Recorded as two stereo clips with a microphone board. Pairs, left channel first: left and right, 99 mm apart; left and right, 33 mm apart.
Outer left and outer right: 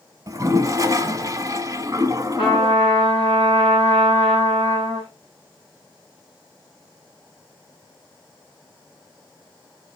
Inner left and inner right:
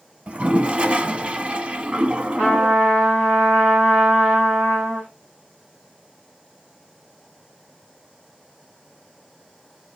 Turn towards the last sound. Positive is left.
turn(degrees=-55)  # may be behind; listen again after turning